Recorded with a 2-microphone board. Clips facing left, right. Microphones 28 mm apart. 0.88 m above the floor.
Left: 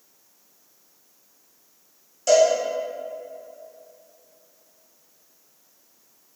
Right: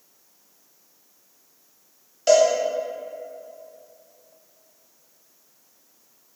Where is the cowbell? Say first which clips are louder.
Even; 35° right (ahead or behind), 1.8 m.